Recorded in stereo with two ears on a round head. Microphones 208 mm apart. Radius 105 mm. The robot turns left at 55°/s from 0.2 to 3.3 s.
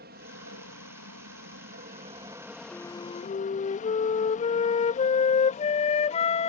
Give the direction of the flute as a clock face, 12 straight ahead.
6 o'clock.